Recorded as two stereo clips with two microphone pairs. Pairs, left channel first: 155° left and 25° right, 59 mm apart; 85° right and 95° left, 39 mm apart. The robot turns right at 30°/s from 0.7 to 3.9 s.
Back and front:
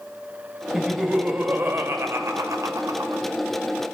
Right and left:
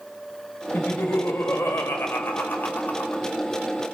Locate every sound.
0.7 s laughter: 105° right, 1.4 m; by 3.2 s 30° right, 1.4 m